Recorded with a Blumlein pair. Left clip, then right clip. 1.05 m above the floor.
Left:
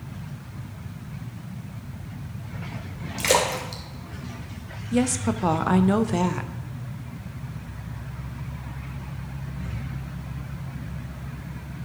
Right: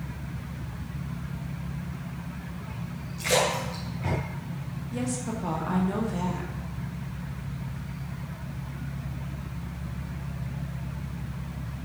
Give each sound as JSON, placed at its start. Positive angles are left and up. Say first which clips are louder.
{"t": 3.2, "sound": "a splash", "louder": "left 3 dB", "azimuth_deg": 35, "distance_m": 2.5}
{"t": 4.9, "sound": "a woman speaking", "louder": "left 8 dB", "azimuth_deg": 60, "distance_m": 0.8}